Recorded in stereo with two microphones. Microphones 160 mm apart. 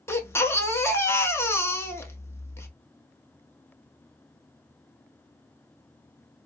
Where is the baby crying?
15° left (ahead or behind), 0.5 m.